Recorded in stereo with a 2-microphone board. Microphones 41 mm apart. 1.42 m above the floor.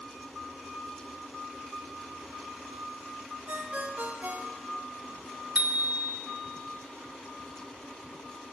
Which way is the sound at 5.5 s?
45° right (ahead or behind).